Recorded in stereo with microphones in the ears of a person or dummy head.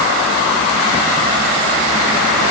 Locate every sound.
Only background noise.